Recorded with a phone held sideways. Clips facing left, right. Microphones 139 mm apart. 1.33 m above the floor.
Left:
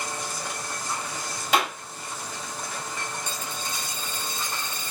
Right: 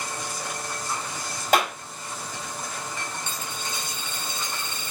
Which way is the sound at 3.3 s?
35° left (ahead or behind).